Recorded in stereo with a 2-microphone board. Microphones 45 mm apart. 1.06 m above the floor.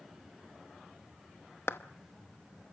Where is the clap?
75° left (ahead or behind), 0.9 m.